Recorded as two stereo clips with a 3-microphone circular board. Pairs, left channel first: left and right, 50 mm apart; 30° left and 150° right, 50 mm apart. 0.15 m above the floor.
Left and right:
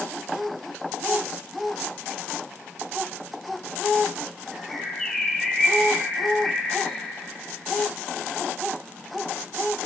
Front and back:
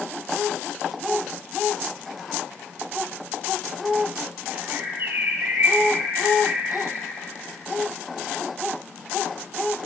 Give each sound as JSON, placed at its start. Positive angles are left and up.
{"t": 4.5, "sound": "a bird", "azimuth_deg": 170, "distance_m": 1.3}